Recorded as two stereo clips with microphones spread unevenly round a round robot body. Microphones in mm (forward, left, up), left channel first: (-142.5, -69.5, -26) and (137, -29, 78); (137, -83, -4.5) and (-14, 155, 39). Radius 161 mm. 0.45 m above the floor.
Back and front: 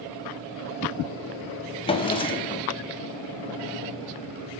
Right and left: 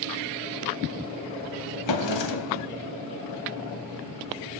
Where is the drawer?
95° right, 0.7 m.